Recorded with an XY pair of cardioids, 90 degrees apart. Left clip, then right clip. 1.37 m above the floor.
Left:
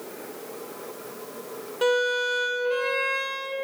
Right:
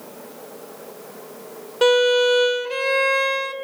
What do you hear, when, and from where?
1.8 s a violin: 60° right, 1.0 m